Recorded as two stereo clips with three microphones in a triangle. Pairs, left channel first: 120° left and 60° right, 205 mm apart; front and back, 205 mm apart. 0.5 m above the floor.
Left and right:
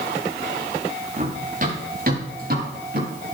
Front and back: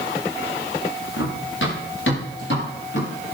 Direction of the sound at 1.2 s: 10° right.